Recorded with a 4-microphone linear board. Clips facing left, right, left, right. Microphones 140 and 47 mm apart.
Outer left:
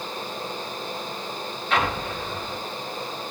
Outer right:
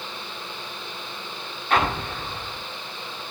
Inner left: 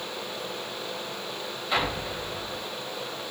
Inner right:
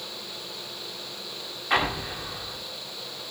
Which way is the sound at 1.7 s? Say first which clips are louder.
Outer right 2 dB, inner right 3 dB; 50° right (ahead or behind).